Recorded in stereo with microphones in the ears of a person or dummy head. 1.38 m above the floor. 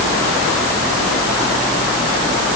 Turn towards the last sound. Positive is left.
No sound to turn to.